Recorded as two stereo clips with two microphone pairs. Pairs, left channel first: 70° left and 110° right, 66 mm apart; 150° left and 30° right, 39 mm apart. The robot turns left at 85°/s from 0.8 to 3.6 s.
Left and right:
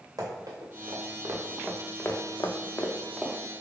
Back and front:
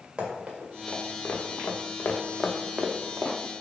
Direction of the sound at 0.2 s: 85° right.